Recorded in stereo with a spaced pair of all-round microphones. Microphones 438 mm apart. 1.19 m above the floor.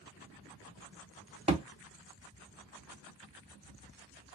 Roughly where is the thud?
Centre.